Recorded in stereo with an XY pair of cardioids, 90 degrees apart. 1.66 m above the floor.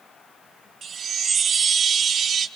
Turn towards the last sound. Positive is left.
turn(degrees=-55)